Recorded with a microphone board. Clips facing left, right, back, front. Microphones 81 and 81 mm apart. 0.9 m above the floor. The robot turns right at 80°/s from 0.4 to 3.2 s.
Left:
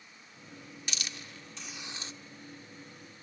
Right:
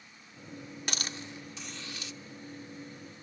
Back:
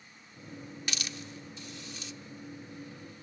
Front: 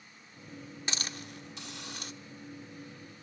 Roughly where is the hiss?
Ahead right.